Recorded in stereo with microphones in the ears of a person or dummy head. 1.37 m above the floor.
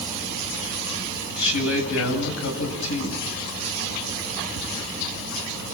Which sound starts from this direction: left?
A woman speaking, at 1.4 s.